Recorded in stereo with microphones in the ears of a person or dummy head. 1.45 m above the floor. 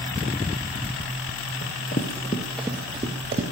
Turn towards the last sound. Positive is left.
turn(degrees=-25)  # may be behind; listen again after turning